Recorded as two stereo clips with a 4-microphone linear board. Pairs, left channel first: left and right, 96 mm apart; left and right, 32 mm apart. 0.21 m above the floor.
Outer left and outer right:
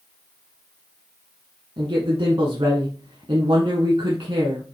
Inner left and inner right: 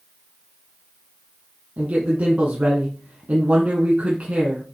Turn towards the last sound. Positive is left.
turn(degrees=-60)  # may be behind; listen again after turning